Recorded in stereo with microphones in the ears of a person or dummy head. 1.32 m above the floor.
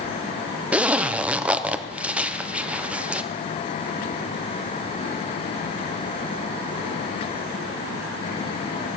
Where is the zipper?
5° right (ahead or behind), 0.7 m.